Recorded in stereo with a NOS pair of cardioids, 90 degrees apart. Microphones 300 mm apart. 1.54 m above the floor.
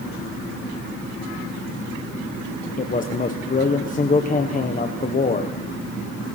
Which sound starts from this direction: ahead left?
A man speaking, at 2.8 s.